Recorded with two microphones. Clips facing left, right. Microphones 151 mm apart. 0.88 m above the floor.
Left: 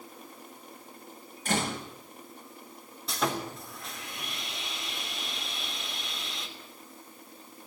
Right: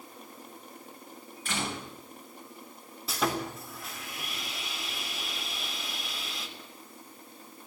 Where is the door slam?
40° left (ahead or behind), 5 m.